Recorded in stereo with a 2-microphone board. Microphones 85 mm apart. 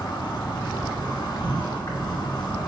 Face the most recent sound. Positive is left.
turn(degrees=60)  # may be behind; listen again after turning